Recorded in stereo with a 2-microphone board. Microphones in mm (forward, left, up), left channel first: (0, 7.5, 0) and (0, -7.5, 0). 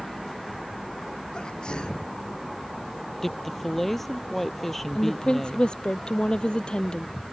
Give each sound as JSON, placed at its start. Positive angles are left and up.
{"t": 1.3, "sound": "a sneeze", "side_deg": 55}
{"t": 3.2, "sound": "a woman speaking", "side_deg": 10}
{"t": 5.0, "sound": "a woman speaking", "side_deg": 65}